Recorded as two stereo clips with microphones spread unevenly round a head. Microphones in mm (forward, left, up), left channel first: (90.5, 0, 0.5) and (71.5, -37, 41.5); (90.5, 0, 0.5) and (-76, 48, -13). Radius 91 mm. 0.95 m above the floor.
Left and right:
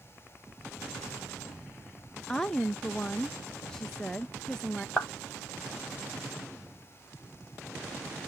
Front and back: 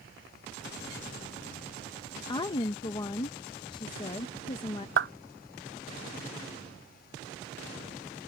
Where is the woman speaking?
45° left.